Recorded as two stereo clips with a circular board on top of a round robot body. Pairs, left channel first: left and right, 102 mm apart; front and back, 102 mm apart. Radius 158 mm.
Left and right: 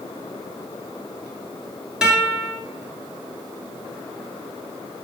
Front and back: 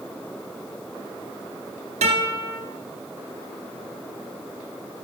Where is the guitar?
175° right, 1.6 m.